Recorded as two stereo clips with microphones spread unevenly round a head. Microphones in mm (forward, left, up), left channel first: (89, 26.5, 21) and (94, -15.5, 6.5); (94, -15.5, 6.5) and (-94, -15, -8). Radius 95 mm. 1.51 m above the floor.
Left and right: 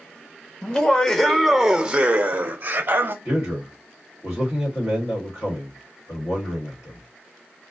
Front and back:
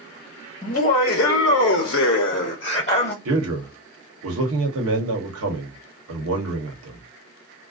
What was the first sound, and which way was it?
Laughter, 50° left.